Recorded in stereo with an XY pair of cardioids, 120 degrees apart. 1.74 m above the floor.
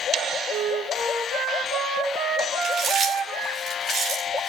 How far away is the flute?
About 7 m.